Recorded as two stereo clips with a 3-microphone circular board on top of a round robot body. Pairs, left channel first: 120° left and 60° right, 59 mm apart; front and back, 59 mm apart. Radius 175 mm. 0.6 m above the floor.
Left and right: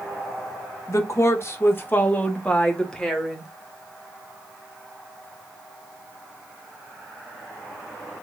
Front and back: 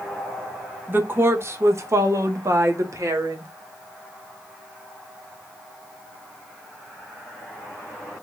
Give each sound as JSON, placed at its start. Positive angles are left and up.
{"t": 0.9, "sound": "a woman speaking", "azimuth_deg": 135, "distance_m": 1.5}